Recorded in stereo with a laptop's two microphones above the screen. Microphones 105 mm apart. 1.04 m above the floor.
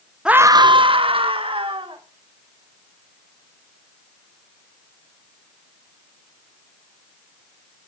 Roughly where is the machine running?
No machine running in this recording.